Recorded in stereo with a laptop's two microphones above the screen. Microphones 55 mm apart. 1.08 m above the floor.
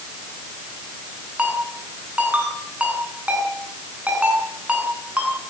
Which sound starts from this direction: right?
A ringtone, at 1.4 s.